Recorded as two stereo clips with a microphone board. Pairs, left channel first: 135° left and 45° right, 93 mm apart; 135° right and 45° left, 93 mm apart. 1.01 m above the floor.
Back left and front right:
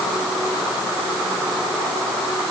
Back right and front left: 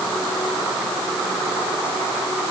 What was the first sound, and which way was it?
Only background noise.